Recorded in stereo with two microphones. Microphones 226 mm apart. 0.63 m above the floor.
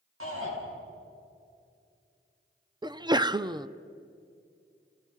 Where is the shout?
70° right (ahead or behind), 8.5 m.